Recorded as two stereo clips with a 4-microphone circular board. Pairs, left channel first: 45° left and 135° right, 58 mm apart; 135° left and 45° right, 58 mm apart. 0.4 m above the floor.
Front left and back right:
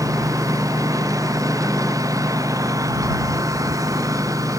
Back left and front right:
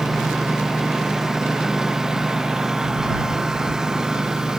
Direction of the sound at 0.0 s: 130° right.